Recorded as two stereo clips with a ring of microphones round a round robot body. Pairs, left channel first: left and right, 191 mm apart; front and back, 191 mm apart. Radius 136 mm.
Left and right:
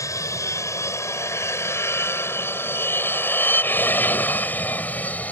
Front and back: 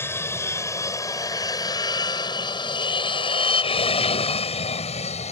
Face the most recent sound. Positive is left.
turn(degrees=15)